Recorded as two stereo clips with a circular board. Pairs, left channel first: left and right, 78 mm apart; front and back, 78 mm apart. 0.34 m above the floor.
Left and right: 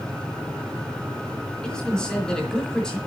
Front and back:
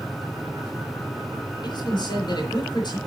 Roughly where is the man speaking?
Ahead.